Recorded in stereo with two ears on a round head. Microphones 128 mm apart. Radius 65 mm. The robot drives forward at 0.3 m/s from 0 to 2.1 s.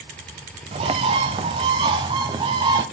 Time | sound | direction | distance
0.7 | a bird | 40° right (ahead or behind) | 0.8 m